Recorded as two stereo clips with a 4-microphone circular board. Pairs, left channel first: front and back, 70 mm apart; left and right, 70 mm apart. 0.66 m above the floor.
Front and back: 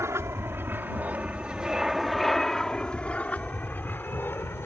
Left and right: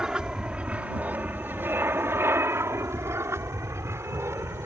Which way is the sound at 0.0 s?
165° right.